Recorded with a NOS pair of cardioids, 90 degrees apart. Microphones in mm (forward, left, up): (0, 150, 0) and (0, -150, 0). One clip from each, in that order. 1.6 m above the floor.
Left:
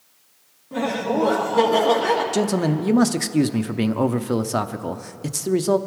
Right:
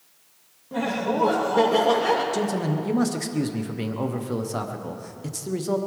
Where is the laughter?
Straight ahead, 2.5 m.